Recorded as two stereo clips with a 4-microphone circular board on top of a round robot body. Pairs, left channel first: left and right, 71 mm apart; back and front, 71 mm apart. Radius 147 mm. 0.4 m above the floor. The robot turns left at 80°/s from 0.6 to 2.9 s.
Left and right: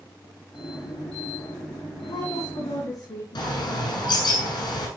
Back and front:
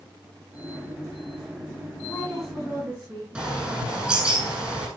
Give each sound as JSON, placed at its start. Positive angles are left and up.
{"t": 2.0, "sound": "a woman speaking", "azimuth_deg": 115, "distance_m": 5.5}
{"t": 3.4, "sound": "a bird", "azimuth_deg": 75, "distance_m": 7.0}